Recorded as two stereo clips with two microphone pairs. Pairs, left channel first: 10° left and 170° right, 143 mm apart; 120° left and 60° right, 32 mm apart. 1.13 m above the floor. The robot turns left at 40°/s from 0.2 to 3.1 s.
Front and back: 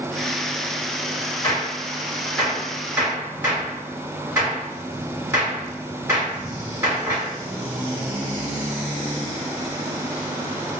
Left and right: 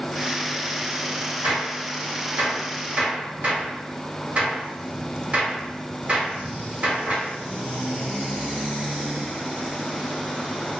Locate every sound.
1.4 s a gunshot: 35° right, 1.7 m; by 7.3 s 100° right, 1.7 m